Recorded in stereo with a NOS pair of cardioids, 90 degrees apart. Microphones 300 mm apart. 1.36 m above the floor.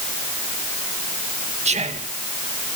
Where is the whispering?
20° right, 1.8 m.